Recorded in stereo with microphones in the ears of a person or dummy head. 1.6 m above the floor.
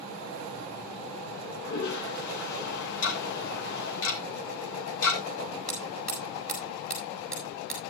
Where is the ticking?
80° left, 3 m.